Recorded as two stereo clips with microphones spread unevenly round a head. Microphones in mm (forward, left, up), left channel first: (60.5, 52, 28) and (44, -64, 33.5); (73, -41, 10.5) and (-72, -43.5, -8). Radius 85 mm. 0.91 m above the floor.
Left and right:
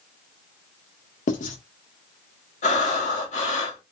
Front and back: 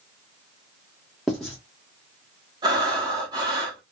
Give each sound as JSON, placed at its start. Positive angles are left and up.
{"t": 1.3, "sound": "writing", "azimuth_deg": 90, "distance_m": 1.4}
{"t": 2.6, "sound": "breathing", "azimuth_deg": 115, "distance_m": 1.3}